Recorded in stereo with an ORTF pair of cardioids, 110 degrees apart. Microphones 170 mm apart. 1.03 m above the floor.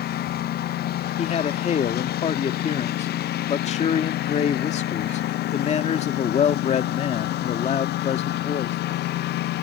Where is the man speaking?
40° left.